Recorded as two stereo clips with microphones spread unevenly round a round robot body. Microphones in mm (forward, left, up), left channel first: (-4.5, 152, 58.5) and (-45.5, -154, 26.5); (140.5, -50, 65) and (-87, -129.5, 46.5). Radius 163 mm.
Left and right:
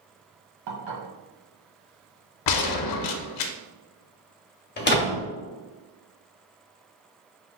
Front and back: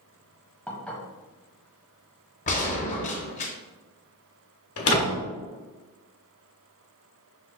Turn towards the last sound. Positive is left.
turn(degrees=25)